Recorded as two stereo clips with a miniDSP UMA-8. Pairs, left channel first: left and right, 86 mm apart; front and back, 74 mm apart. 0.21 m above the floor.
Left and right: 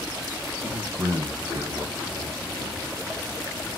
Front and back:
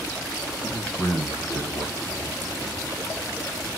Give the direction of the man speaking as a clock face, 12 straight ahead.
3 o'clock.